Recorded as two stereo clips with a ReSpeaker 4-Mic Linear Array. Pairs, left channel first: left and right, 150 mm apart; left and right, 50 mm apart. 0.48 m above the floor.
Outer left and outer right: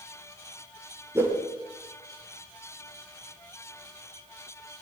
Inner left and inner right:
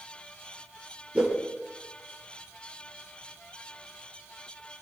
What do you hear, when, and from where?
1.1 s a whoosh: 20° right (ahead or behind), 6 m